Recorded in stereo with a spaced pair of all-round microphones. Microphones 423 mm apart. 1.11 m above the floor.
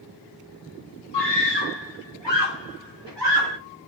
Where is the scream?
80° left, 3 m; by 3.6 s 75° left (ahead or behind), 3.5 m.